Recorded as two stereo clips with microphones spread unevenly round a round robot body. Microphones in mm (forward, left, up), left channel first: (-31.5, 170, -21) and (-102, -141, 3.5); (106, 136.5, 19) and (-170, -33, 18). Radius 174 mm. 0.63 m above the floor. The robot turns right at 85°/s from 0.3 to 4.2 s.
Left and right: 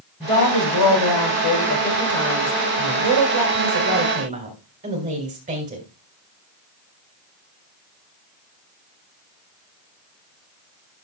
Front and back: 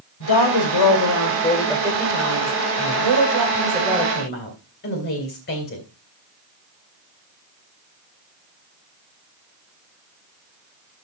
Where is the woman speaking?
5° right, 2.5 m; by 5.8 s 30° right, 2.5 m.